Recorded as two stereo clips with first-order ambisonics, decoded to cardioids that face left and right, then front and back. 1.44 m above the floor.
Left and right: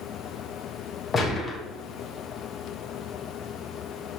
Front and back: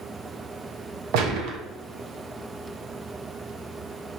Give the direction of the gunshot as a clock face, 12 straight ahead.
7 o'clock.